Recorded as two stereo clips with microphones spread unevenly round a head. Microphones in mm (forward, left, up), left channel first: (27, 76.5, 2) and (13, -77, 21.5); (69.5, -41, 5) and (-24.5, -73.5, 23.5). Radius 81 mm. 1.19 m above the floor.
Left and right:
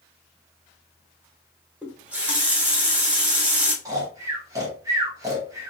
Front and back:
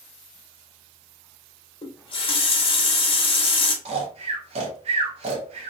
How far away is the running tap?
About 0.8 m.